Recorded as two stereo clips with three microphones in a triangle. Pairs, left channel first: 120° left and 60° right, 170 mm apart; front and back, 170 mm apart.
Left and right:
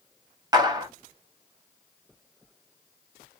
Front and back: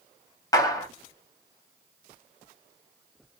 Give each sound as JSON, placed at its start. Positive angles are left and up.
{"t": 0.5, "sound": "a clap", "azimuth_deg": -35, "distance_m": 0.7}